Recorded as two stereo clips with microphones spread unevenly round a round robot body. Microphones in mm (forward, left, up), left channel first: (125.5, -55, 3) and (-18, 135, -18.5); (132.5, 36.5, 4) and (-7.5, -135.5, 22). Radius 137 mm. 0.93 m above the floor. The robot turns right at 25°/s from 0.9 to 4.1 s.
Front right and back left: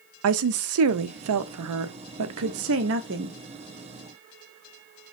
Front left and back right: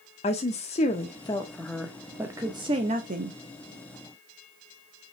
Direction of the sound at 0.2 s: 115° left.